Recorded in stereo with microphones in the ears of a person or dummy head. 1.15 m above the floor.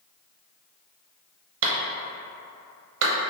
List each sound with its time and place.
1.6 s a clap: 70° right (ahead or behind), 0.7 m